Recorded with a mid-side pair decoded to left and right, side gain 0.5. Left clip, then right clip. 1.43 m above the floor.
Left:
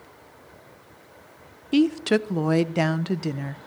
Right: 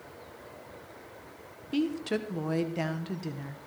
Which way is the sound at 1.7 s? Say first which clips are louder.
Left 9 dB; 55° left.